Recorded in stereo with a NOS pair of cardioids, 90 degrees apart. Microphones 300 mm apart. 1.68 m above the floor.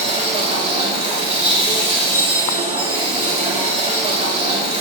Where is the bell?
35° right, 5 m.